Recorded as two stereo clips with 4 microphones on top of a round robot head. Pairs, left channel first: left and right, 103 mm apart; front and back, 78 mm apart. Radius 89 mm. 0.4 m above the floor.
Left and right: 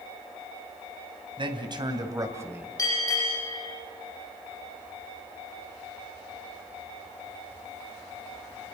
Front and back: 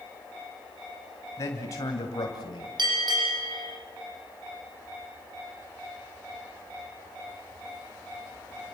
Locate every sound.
1.4 s a man speaking: 55° right, 3 m; by 2.7 s 20° right, 2 m
2.8 s a bell: 155° left, 9.5 m